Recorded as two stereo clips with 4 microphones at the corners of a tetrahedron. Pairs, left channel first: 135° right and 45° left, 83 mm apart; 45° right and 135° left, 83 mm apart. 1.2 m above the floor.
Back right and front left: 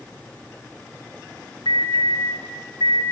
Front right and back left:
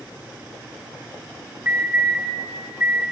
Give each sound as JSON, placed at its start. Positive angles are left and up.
{"t": 1.6, "sound": "an alarm", "azimuth_deg": -160, "distance_m": 9.0}